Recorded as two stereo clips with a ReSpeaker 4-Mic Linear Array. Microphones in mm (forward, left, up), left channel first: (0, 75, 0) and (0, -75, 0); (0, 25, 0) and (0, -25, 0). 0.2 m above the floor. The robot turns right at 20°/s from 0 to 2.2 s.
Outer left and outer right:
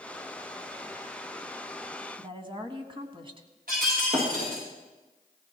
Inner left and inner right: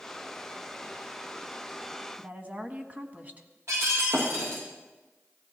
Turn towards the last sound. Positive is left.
turn(degrees=-70)  # may be behind; listen again after turning